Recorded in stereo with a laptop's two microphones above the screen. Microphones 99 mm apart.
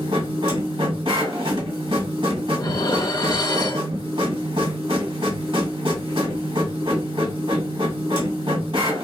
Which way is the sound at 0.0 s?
55° right (ahead or behind).